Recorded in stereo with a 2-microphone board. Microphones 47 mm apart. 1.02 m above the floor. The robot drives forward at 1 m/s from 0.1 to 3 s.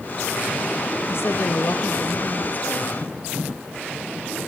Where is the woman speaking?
60° left (ahead or behind), 1.3 m; by 3.0 s 30° left (ahead or behind), 2 m.